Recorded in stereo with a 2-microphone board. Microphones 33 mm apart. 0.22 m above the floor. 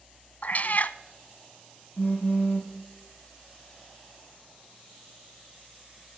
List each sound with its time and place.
0.4 s a cat meowing: 50° left (ahead or behind), 0.6 m
2.0 s a phone buzzing: 85° left, 3.5 m